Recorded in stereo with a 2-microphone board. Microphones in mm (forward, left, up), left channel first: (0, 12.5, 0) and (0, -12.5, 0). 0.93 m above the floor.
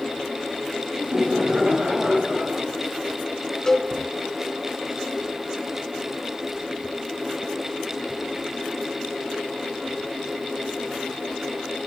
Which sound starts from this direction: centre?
A cowbell, at 3.7 s.